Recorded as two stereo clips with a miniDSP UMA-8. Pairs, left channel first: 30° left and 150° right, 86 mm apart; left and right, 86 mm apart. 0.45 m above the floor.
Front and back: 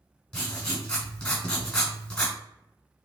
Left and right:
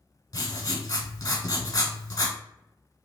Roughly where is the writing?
Left.